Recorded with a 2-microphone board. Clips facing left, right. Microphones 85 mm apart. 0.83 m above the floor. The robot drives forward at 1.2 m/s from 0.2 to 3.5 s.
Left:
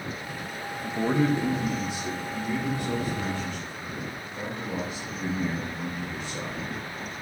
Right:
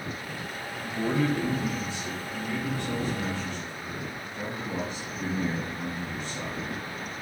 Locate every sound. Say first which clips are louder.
0.8 s a man speaking: left 2 dB; 20° left (ahead or behind), 1.0 m; by 6.6 s 5° left (ahead or behind), 3 m